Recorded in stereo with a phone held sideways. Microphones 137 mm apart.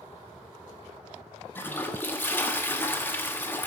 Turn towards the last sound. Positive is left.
turn(degrees=15)  # may be behind; listen again after turning